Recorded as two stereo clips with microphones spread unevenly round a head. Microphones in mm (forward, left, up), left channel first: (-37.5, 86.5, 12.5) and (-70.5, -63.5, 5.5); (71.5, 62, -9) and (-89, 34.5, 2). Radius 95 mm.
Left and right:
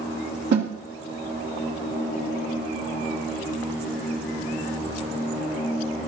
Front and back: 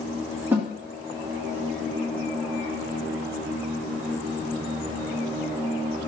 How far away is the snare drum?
About 1.9 m.